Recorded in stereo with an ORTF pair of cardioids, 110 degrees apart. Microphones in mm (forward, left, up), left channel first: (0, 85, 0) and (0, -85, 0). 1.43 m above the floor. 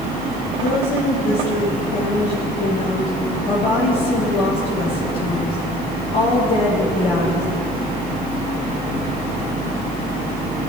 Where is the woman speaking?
60° left, 2.5 m.